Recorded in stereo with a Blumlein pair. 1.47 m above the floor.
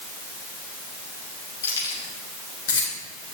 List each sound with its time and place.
1.6 s keys jangling: 65° left, 2.5 m; by 2.9 s 60° left, 3 m